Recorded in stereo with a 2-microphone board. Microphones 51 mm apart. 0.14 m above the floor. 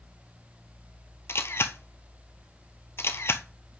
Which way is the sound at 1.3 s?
55° left (ahead or behind).